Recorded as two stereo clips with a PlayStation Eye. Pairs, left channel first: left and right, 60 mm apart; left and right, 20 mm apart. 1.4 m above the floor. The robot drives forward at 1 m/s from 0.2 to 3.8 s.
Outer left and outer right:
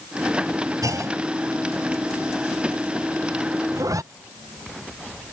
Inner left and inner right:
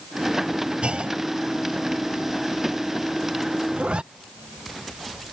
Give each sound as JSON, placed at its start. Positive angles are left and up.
{"t": 0.8, "sound": "a clunk", "side_deg": -65}
{"t": 3.7, "sound": "a zipper", "side_deg": -60}